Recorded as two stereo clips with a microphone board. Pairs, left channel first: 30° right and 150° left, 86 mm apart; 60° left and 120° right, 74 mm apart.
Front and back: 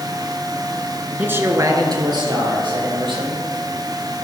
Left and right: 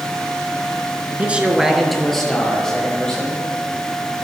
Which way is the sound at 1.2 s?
165° right.